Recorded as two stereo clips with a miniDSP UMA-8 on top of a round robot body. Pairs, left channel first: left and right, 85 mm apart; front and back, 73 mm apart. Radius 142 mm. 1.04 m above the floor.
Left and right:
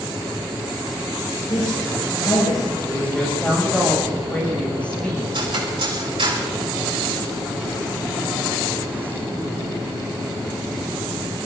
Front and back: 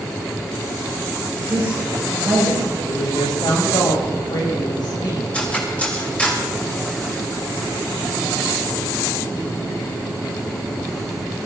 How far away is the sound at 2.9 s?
About 6.5 m.